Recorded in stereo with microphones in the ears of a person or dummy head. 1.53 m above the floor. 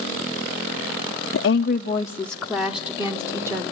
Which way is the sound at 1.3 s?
70° left (ahead or behind).